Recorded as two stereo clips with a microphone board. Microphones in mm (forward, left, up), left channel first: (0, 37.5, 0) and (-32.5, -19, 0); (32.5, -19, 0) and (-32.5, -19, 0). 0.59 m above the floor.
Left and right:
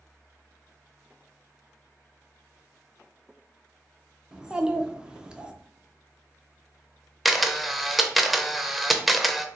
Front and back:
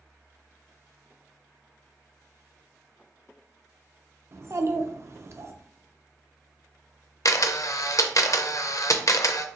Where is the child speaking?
170° left, 0.7 m.